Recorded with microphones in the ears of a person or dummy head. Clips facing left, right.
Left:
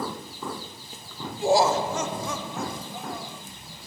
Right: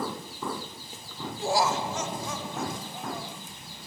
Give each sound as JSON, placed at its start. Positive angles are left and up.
{"t": 1.4, "sound": "laughter", "side_deg": 15, "distance_m": 0.6}